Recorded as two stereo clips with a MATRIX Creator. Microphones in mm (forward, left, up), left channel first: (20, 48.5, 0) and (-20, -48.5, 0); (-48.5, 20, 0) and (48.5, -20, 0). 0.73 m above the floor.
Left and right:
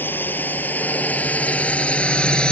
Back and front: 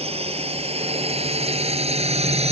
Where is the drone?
5° right; by 2.5 s 15° right.